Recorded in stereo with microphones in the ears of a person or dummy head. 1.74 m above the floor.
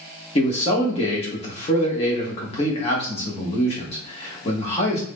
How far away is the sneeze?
No sneeze in this recording.